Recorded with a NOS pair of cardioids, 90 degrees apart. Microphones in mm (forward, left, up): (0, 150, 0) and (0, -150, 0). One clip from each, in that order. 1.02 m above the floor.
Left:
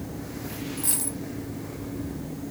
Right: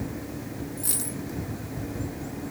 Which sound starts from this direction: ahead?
A dropped coin, at 0.8 s.